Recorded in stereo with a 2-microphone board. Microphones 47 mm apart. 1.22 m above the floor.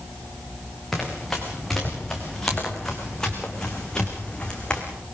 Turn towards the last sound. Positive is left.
turn(degrees=20)  # may be behind; listen again after turning